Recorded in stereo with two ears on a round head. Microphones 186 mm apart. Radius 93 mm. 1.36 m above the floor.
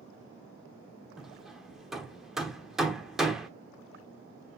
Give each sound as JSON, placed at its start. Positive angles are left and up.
{"t": 1.2, "sound": "hammering", "side_deg": 0, "distance_m": 1.0}